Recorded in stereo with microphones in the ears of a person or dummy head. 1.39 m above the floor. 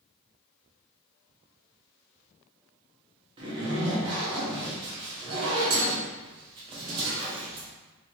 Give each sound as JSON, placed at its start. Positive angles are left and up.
{"t": 3.4, "sound": "a zipper", "side_deg": -30, "distance_m": 0.9}